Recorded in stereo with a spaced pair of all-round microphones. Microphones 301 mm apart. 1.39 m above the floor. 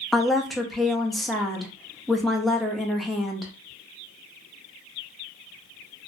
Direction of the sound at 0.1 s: Centre (ahead or behind).